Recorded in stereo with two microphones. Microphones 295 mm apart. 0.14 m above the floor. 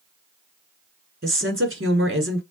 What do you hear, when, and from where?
1.2 s a woman speaking: 45° right (ahead or behind), 1.5 m